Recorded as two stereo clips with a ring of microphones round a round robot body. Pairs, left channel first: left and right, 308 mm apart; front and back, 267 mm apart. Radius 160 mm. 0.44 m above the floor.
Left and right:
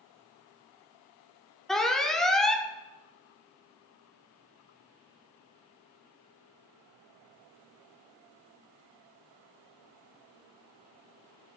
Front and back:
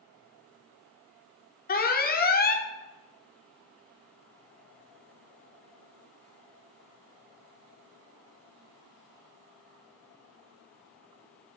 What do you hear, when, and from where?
1.7 s an alarm: 5° left, 1.2 m